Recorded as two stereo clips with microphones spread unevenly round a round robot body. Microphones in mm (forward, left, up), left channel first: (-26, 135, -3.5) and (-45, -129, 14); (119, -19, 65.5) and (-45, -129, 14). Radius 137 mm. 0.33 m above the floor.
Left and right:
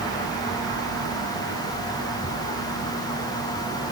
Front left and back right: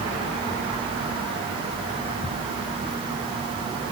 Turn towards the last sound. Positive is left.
No sound to turn to.